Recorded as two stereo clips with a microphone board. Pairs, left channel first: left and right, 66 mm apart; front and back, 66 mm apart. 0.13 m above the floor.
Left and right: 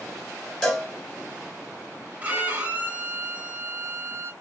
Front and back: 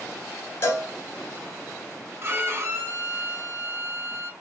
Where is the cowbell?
15° left, 1.5 m.